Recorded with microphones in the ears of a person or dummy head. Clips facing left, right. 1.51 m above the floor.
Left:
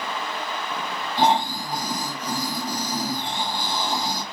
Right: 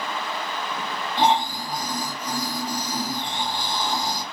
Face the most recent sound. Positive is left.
turn(degrees=10)  # may be behind; listen again after turning